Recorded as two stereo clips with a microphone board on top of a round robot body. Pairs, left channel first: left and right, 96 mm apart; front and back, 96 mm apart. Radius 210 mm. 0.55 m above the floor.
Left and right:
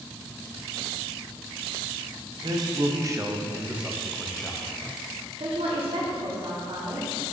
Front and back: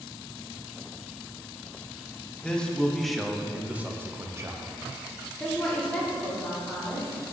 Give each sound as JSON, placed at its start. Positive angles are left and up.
{"t": 2.4, "sound": "a man speaking", "azimuth_deg": -75, "distance_m": 1.3}
{"t": 5.4, "sound": "a woman speaking", "azimuth_deg": -80, "distance_m": 1.9}